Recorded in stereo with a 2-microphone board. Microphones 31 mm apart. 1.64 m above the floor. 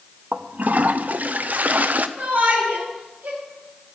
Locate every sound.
0.3 s a toilet flushing: 55° right (ahead or behind), 0.6 m
2.2 s a shout: 70° right (ahead or behind), 7.5 m